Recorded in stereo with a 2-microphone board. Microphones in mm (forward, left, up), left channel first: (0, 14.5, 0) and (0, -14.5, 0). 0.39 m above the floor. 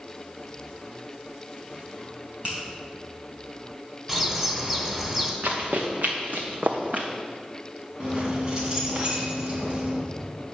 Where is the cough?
No cough in this recording.